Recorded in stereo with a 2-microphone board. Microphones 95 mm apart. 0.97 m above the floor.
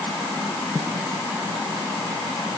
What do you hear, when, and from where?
Only background noise.